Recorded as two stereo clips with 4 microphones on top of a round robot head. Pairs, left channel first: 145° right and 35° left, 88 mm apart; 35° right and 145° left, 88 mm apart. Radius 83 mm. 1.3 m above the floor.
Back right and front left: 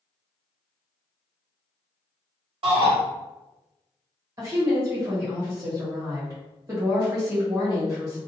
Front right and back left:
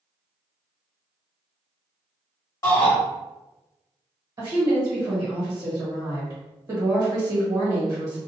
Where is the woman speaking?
90° left, 1.5 m.